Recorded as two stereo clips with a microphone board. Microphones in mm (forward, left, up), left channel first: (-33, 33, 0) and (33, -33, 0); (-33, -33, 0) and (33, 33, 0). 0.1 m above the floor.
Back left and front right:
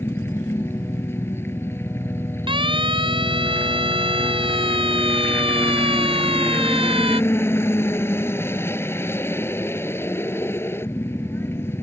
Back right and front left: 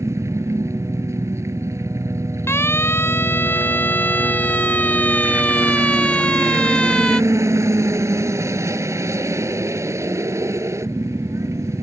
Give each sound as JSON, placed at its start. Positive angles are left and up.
{"t": 0.0, "sound": "a helicopter", "azimuth_deg": 85}
{"t": 2.5, "sound": "a siren", "azimuth_deg": -70}